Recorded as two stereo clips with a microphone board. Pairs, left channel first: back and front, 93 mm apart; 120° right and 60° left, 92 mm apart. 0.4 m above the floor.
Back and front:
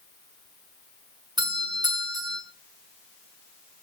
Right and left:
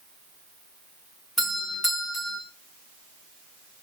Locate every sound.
1.4 s a doorbell: 35° right, 5.5 m